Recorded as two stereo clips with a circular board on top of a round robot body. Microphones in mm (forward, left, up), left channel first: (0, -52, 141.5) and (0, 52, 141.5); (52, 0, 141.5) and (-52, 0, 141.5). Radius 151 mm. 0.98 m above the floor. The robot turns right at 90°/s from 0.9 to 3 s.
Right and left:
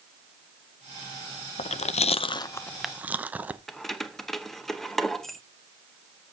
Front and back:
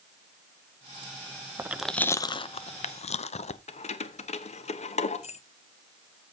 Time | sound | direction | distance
1.6 | chewing | 115° right | 0.6 m
3.7 | keys jangling | 5° right | 0.8 m